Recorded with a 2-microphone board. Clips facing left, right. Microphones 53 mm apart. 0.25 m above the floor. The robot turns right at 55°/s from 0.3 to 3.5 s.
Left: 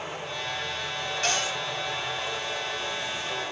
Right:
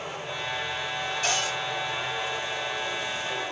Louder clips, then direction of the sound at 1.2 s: Left 1 dB; 45° left (ahead or behind).